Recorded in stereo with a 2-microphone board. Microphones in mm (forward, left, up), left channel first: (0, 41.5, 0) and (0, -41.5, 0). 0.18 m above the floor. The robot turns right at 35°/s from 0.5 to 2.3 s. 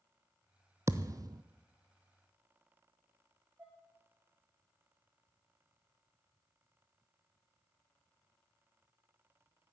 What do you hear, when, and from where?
0.9 s a thud: 35° right (ahead or behind), 0.7 m; by 1.4 s 55° right (ahead or behind), 0.7 m
3.6 s dishes clattering: 20° right (ahead or behind), 8 m